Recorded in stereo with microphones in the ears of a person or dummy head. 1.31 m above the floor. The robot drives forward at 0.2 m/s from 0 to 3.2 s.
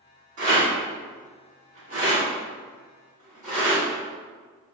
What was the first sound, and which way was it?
A rattle, 45° right (ahead or behind).